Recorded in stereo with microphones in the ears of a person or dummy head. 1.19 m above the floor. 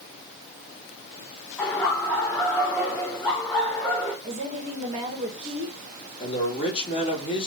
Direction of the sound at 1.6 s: 10° left (ahead or behind).